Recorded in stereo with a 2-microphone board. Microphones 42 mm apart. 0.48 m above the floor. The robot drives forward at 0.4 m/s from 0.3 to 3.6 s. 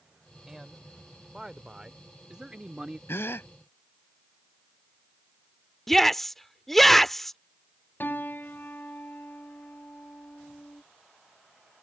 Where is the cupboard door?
I don't hear a cupboard door.